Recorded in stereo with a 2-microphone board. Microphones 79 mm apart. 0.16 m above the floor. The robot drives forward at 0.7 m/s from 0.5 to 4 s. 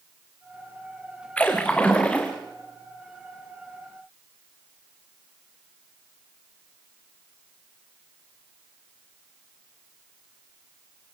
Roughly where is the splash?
Centre.